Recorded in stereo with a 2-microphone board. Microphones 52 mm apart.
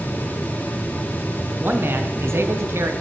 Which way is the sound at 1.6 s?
45° right (ahead or behind).